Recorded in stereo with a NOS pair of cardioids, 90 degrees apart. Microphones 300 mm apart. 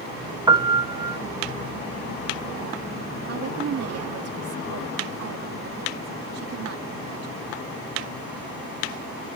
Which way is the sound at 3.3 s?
55° right.